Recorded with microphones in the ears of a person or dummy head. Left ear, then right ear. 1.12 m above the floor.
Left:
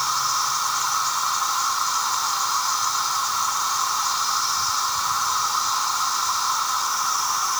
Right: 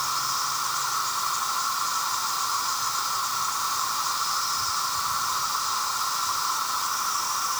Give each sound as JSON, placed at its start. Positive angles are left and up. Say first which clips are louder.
{"t": 0.0, "sound": "an insect", "louder": "left 4 dB", "side_deg": 20}